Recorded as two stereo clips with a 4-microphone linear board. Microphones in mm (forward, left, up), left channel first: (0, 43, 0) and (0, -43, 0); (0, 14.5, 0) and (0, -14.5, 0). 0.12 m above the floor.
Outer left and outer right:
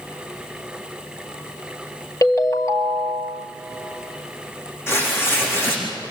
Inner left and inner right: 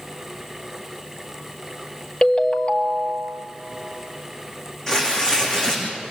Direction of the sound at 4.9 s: 30° left (ahead or behind).